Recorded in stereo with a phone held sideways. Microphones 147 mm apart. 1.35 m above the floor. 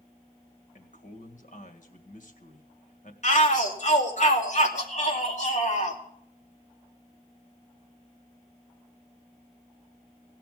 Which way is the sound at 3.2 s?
55° left (ahead or behind).